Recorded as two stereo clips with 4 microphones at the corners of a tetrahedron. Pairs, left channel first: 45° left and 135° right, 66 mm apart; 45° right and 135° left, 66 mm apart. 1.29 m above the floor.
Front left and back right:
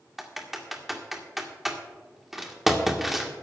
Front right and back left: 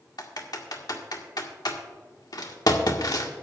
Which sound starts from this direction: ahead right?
Typing on a keyboard, at 0.2 s.